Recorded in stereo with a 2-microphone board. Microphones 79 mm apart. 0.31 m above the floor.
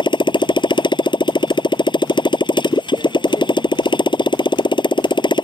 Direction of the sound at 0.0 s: 80° left.